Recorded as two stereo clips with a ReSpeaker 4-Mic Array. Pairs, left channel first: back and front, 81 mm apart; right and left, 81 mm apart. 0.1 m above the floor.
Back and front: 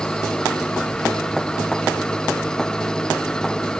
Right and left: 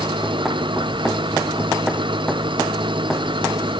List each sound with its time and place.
0.0 s an engine running: 100° left